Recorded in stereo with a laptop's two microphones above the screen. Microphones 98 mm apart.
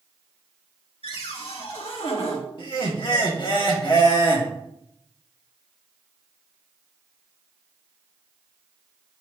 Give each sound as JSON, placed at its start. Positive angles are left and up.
{"t": 1.0, "sound": "a cupboard door", "side_deg": 80, "distance_m": 2.0}
{"t": 2.6, "sound": "laughter", "side_deg": 55, "distance_m": 1.9}